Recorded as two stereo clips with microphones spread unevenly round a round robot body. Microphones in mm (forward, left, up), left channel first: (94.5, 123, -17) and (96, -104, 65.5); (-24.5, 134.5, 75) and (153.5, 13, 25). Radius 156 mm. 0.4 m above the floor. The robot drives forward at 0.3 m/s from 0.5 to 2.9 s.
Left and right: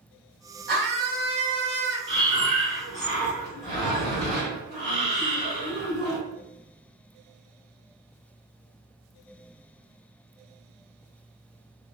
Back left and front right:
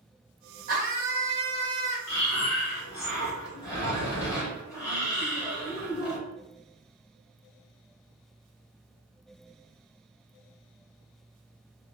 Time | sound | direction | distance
0.7 | a scream | 35° right | 1.7 m
2.1 | breathing | 170° right | 1.2 m